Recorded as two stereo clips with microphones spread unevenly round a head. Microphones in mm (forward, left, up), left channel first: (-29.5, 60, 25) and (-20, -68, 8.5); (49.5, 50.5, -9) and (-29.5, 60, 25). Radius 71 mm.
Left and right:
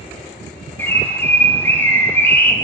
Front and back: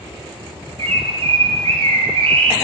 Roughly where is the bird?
Behind.